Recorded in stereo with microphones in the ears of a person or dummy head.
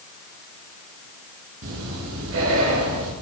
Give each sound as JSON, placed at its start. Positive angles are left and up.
{"t": 1.6, "sound": "breathing", "side_deg": -75, "distance_m": 8.0}